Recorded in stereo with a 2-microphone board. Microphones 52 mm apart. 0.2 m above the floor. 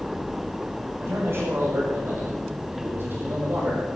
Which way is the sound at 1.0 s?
60° right (ahead or behind).